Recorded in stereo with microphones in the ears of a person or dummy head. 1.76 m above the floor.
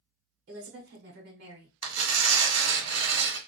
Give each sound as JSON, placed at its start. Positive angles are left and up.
{"t": 0.5, "sound": "a woman speaking", "side_deg": -55, "distance_m": 1.2}
{"t": 1.8, "sound": "tearing paper", "side_deg": -90, "distance_m": 1.0}